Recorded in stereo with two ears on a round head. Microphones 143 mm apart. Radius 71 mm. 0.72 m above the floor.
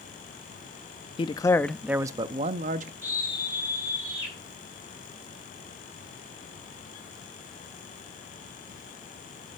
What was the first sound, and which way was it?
A man speaking, 35° left (ahead or behind).